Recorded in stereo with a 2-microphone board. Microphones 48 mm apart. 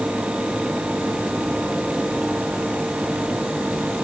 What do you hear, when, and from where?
Only background noise.